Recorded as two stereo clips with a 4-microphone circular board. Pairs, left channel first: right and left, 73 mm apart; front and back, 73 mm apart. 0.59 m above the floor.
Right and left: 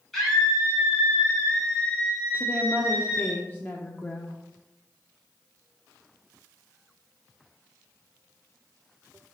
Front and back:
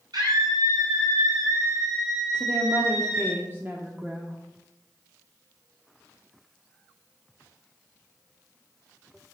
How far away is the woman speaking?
About 1.0 m.